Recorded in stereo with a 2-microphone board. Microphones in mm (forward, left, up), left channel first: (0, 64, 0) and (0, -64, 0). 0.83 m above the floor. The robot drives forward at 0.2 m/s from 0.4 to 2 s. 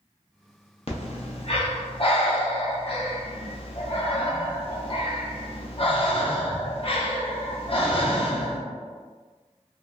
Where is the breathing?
50° left (ahead or behind), 0.6 m; by 8.6 s 45° left (ahead or behind), 0.7 m.